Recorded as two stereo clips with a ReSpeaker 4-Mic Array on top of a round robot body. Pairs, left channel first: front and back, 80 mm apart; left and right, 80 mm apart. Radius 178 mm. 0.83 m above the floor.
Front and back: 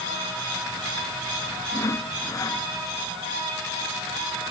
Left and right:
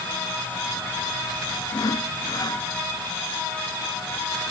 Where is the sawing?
50° left.